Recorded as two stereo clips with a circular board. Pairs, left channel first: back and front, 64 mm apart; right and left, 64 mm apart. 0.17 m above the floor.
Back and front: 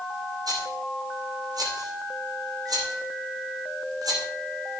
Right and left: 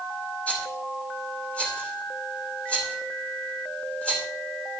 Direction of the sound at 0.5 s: 15° right.